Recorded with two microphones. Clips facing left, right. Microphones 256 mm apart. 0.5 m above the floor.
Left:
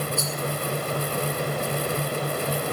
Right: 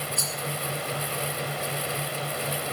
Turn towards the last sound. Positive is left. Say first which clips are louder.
# left 6 dB
turn(degrees=-55)  # may be behind; listen again after turning